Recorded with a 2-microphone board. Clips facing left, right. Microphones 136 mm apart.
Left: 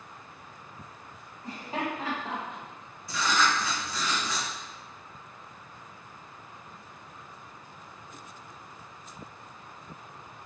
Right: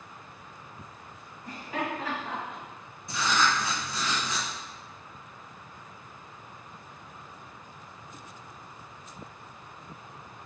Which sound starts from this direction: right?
Writing, at 3.1 s.